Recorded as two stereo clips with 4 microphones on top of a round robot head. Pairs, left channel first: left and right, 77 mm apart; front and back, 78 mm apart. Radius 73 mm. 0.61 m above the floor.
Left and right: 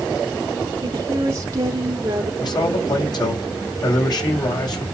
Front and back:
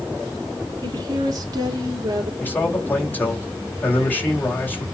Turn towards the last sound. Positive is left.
turn(degrees=65)